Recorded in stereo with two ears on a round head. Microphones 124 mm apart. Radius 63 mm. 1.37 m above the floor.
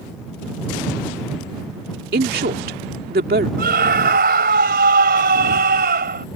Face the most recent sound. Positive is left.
turn(degrees=-75)  # may be behind; listen again after turning